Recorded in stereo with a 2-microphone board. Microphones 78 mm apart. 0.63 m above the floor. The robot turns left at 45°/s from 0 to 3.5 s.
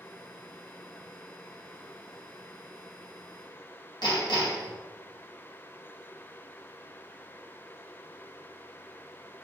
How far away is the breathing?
I don't hear breathing.